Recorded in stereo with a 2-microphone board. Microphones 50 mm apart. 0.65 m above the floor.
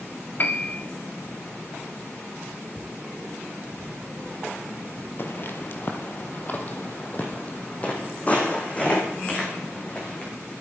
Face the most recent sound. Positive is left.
turn(degrees=20)  # may be behind; listen again after turning